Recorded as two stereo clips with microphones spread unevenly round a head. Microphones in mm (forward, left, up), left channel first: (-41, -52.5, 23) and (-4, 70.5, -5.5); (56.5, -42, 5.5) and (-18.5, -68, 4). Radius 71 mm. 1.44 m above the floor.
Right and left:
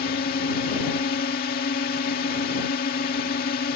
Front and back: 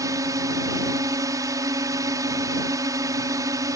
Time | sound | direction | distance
0.0 | a drone | 120° right | ?